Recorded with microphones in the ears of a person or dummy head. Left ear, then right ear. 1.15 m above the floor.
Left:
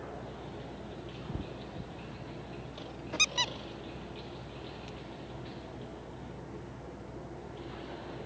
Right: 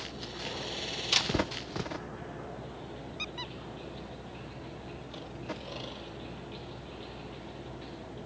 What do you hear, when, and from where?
3.2 s a squeak: 65° left (ahead or behind)